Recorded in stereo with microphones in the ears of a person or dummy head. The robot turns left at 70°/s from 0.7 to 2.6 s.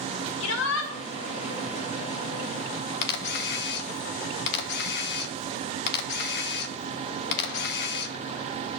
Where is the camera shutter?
65° left (ahead or behind), 0.7 m.